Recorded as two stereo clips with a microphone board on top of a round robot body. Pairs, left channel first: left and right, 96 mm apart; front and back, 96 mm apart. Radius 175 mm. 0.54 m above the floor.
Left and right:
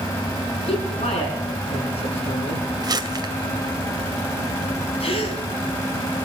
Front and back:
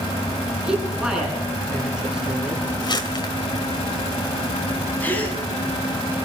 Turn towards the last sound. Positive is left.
turn(degrees=75)